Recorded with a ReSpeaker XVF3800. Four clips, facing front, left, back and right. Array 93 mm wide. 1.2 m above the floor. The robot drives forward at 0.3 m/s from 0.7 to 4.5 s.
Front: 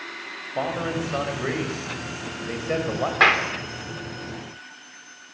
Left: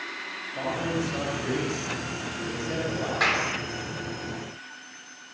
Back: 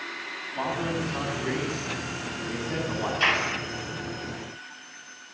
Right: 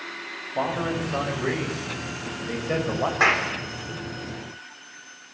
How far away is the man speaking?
About 8 m.